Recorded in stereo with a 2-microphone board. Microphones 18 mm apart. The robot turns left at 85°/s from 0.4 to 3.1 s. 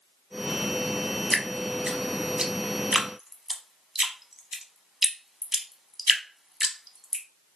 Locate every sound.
1.3 s dripping: centre (ahead or behind), 0.5 m; by 7.2 s 25° right (ahead or behind), 0.5 m